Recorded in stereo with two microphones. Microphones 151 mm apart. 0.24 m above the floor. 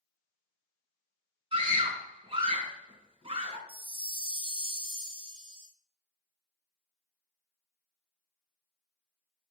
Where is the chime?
35° right (ahead or behind), 1.6 m.